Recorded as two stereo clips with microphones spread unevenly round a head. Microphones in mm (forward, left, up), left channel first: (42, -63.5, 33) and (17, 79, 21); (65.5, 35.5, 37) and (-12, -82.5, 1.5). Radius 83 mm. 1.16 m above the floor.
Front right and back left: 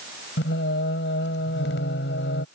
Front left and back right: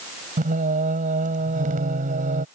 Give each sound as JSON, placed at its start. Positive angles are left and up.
{"t": 0.4, "sound": "singing", "azimuth_deg": -90}